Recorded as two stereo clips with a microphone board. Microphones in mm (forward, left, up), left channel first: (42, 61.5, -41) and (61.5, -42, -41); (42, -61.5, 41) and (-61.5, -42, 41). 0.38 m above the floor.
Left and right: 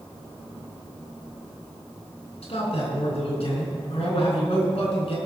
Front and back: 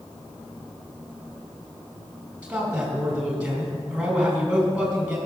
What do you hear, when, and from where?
2.4 s a man speaking: 90° left, 4 m